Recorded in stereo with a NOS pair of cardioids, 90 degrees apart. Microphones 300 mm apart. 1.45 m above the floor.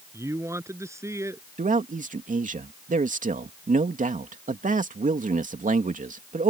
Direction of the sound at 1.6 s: 25° right.